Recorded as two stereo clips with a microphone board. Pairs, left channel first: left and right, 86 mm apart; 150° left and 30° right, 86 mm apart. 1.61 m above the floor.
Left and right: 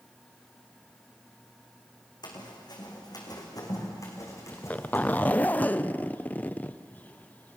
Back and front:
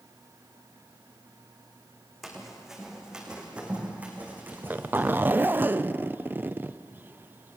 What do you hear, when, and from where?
2.2 s running footsteps: 60° left, 4.5 m; by 5.3 s 30° left, 5 m
4.5 s a zipper: 25° left, 0.5 m